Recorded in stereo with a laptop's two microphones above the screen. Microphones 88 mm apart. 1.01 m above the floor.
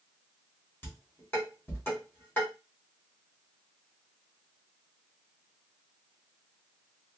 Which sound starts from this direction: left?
Dishes clattering, at 0.8 s.